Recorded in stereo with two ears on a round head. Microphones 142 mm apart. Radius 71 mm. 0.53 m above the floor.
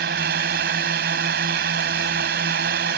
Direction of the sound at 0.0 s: 70° right (ahead or behind).